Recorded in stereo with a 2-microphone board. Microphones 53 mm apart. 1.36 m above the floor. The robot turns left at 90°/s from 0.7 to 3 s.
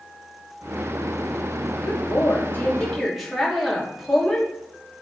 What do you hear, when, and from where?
1.8 s a woman speaking: 105° left, 2.5 m; by 4.5 s straight ahead, 2.5 m